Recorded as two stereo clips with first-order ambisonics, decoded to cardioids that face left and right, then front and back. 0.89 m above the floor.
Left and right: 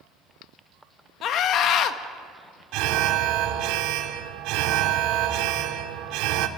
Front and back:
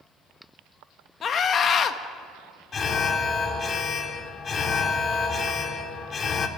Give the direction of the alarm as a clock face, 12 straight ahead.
2 o'clock.